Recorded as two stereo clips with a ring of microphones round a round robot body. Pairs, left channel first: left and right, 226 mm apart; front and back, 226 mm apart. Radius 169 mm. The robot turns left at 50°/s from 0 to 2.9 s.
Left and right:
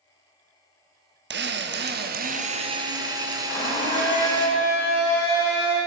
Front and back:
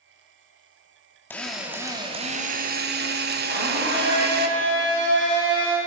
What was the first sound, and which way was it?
A drill, 80° right.